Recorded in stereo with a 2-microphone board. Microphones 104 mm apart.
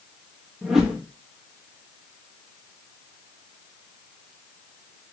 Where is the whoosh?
5° right (ahead or behind), 0.7 m.